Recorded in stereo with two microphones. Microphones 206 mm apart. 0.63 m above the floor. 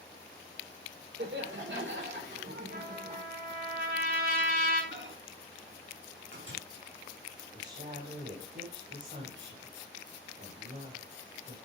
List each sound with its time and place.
1.2 s laughter: 65° right (ahead or behind), 2.0 m; by 3.2 s 45° right (ahead or behind), 2.5 m
2.7 s a trumpet: 50° right (ahead or behind), 3 m
4.9 s a microwave: 70° right (ahead or behind), 4.5 m
7.5 s a woman speaking: 60° right (ahead or behind), 2.5 m